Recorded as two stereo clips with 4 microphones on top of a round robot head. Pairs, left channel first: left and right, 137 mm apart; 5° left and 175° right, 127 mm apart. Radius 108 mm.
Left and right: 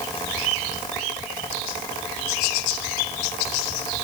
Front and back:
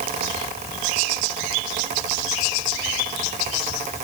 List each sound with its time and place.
Only background noise.